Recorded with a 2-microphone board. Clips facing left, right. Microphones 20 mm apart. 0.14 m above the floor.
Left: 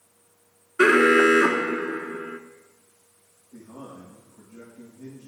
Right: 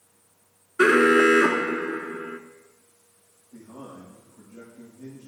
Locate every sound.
0.8 s an alarm: 5° left (ahead or behind), 1.1 m
3.5 s a man speaking: 25° right (ahead or behind), 6.5 m